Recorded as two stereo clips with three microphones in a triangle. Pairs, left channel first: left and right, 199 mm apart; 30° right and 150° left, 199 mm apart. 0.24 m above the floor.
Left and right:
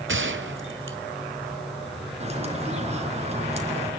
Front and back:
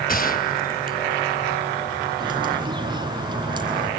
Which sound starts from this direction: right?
A gunshot, at 0.1 s.